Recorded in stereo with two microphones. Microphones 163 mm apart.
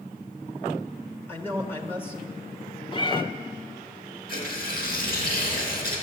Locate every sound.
1.3 s a man speaking: 15° left (ahead or behind), 1.4 m
2.9 s a cat meowing: 30° left (ahead or behind), 0.9 m
4.3 s tearing paper: 65° left (ahead or behind), 4 m